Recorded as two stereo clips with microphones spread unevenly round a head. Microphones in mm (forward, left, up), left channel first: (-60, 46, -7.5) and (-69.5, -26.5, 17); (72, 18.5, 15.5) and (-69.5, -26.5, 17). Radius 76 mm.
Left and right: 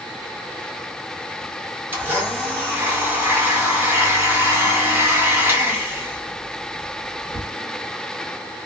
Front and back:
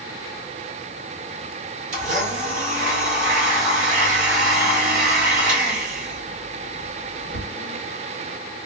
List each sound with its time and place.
1.9 s a blender: 140° right, 1.8 m